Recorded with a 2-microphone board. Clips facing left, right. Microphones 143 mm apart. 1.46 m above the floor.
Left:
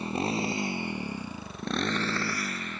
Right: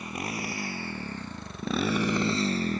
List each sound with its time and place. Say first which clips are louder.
0.0 s a motorcycle: left 5 dB; 30° left (ahead or behind); by 2.8 s 40° right (ahead or behind)